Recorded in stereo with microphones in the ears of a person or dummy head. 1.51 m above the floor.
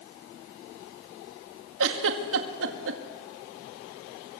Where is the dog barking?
I don't hear a dog barking.